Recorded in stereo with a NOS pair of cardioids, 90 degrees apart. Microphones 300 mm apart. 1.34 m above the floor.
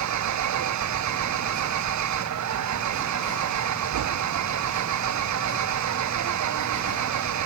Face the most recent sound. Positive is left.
turn(degrees=-70)